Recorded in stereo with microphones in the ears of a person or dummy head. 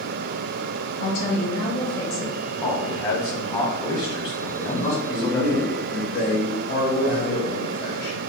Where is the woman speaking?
55° left (ahead or behind), 1.6 m.